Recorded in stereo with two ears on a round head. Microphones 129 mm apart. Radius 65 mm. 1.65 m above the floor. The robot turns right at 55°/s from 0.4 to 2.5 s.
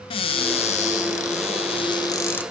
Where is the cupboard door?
50° left, 0.6 m; by 2.4 s 165° left, 0.6 m.